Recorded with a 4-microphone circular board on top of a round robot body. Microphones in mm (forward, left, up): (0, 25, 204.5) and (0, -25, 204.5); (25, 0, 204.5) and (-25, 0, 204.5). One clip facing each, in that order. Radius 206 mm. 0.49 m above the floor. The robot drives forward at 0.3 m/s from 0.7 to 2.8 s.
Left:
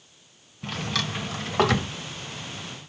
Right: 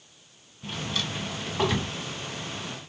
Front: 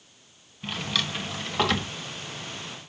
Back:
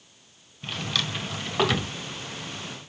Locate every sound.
0.6 s a drawer: 85° left, 1.8 m; by 1.9 s 95° left, 1.8 m